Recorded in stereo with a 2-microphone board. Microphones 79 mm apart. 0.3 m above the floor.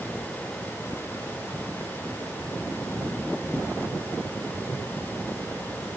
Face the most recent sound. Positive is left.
No sound to turn to.